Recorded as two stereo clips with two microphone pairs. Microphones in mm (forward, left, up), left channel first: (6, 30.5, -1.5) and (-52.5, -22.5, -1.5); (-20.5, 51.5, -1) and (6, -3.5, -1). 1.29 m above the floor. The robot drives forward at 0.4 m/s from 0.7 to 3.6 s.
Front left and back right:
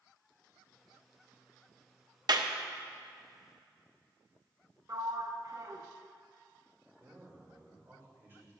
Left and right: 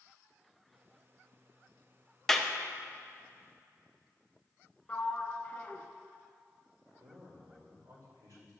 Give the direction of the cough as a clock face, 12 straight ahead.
No cough in this recording.